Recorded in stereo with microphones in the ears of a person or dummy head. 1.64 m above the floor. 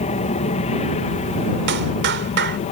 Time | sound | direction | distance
0.0 | an aircraft | 35° left (ahead or behind) | ?
1.7 | a clap | 55° right (ahead or behind) | ?